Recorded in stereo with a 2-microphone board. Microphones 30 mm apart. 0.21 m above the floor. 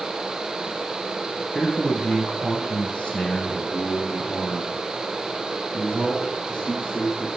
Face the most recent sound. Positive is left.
turn(degrees=35)  # may be behind; listen again after turning